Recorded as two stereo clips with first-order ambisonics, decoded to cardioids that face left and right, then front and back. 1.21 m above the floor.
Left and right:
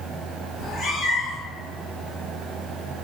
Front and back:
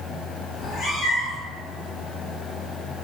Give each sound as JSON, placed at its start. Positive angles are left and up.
{"t": 0.6, "sound": "a cat meowing", "azimuth_deg": 40, "distance_m": 0.8}